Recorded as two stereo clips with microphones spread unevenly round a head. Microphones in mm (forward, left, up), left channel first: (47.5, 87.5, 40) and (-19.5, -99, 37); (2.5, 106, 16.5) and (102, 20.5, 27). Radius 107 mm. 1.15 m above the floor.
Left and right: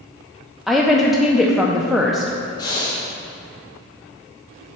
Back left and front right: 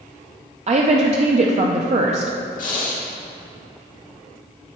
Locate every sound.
0.7 s a woman speaking: 20° right, 0.5 m
2.6 s breathing: 140° left, 1.4 m